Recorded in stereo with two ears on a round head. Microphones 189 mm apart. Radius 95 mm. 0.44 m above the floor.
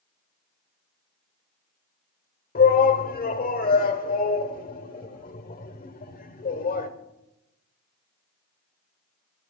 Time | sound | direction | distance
2.5 | a shout | 40° left (ahead or behind) | 1.4 m